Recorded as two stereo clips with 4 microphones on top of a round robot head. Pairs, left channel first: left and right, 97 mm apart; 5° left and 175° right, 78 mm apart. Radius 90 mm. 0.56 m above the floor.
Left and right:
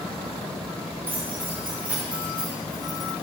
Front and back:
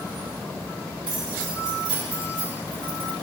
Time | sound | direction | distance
1.1 | keys jangling | 160° right | 3.5 m